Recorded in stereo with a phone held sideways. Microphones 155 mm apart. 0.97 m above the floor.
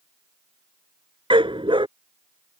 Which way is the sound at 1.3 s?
35° right (ahead or behind).